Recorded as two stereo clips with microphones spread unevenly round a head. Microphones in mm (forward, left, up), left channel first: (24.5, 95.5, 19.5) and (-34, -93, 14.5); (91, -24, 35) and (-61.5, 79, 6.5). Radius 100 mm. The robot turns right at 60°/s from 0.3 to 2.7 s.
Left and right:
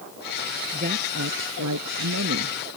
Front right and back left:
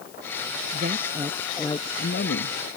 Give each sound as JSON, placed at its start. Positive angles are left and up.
{"t": 0.7, "sound": "a woman speaking", "azimuth_deg": -165}